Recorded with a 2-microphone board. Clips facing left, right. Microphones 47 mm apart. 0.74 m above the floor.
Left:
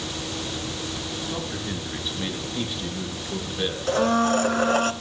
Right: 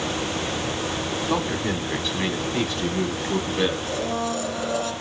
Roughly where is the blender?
Left.